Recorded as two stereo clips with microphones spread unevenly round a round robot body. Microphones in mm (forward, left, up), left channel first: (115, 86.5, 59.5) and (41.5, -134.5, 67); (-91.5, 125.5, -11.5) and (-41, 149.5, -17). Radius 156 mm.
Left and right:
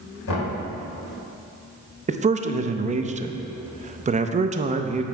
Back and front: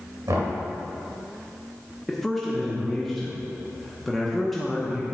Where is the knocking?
50° left, 2 m.